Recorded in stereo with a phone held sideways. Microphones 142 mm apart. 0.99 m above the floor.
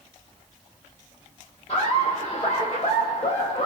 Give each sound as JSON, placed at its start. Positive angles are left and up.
{"t": 1.7, "sound": "laughter", "side_deg": 45, "distance_m": 1.1}